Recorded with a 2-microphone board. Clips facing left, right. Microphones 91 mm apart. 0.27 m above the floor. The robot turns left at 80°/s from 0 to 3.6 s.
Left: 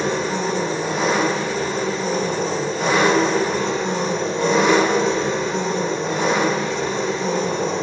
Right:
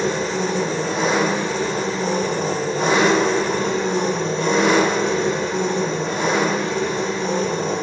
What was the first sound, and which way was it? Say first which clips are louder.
An engine running: even; 85° left.